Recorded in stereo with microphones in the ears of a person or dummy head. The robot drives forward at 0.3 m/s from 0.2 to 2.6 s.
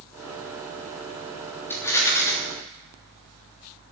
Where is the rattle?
15° left (ahead or behind), 3 m; by 2.3 s 20° left (ahead or behind), 3 m.